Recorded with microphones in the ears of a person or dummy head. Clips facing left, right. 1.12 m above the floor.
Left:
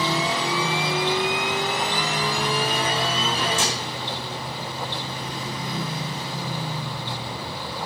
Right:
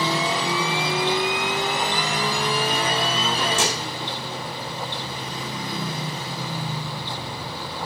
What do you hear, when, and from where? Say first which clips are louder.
3.6 s dishes clattering: right 2 dB; 50° right (ahead or behind), 3 m